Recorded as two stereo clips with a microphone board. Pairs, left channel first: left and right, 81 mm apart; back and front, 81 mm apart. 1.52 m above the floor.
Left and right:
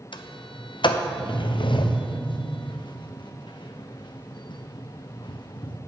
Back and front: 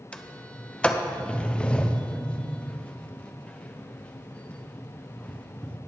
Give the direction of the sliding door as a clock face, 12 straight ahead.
9 o'clock.